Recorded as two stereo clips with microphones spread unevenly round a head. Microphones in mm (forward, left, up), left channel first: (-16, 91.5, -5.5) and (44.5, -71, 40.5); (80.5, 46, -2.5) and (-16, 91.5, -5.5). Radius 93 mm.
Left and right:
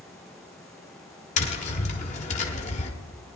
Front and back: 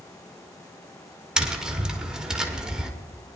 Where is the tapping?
75° left, 1.3 m.